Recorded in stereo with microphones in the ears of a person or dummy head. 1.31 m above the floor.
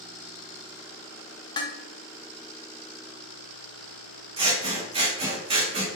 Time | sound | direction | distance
1.6 | dishes clattering | 25° left (ahead or behind) | 0.5 m
4.4 | scissors | 30° right (ahead or behind) | 0.7 m